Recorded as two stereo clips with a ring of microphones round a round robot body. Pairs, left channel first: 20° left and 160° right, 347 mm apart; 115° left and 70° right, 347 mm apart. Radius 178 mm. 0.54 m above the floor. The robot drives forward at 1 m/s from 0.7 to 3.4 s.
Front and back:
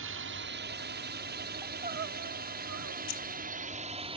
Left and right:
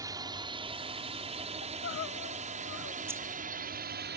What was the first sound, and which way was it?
A drone, 140° right.